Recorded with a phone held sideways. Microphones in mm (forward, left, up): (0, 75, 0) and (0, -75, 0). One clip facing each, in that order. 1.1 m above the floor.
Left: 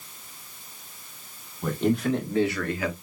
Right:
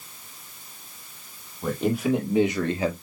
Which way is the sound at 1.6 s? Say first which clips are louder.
Even; centre (ahead or behind).